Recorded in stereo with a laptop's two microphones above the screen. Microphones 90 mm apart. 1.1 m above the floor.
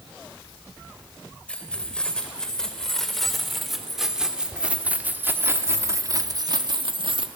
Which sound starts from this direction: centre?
Keys jangling, at 1.5 s.